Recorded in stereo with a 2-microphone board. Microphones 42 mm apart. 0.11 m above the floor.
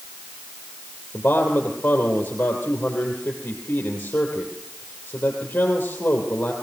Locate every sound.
1.1 s a man speaking: 45° left (ahead or behind), 3.5 m